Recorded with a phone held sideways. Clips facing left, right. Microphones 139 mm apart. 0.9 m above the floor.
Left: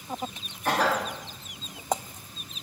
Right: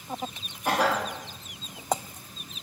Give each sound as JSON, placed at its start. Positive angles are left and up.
{"t": 0.7, "sound": "a cough", "side_deg": -10, "distance_m": 0.6}